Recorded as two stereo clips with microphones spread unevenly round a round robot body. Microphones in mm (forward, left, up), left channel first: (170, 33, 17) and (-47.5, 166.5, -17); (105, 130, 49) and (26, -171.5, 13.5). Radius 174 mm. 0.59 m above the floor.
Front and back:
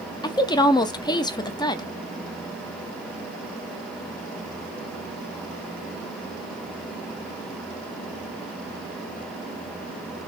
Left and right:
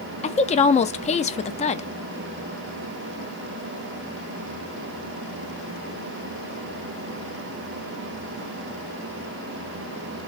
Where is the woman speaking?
35° left, 0.5 m.